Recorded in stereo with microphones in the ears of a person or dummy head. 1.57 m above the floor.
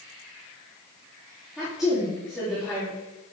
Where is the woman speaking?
5° right (ahead or behind), 4 m.